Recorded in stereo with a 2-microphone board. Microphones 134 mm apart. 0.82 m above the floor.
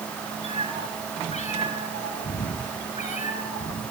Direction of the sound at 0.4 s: 50° left (ahead or behind).